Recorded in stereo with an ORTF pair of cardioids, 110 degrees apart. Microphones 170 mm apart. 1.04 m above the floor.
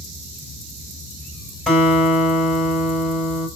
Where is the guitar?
Straight ahead, 4 m.